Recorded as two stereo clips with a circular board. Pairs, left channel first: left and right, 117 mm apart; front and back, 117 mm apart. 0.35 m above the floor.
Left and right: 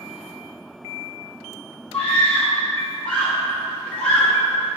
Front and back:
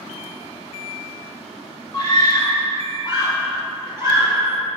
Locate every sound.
1.9 s a scream: 15° left, 1.9 m